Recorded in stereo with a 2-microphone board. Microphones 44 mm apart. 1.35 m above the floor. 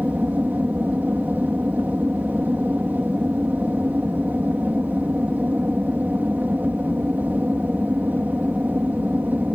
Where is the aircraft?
45° right (ahead or behind).